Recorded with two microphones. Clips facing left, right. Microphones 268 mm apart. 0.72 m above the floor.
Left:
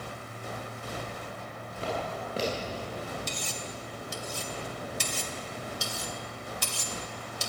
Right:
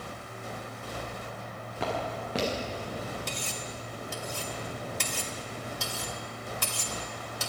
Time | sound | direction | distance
1.8 | footsteps | 85° right | 8 m
3.3 | cutlery clinking | 60° right (ahead or behind) | 2.5 m